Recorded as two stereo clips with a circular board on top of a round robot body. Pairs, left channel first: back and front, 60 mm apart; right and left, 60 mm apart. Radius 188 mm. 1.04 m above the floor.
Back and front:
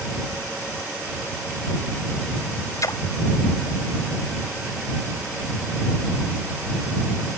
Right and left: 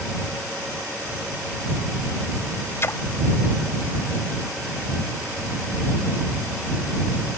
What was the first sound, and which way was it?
A splash, 145° right.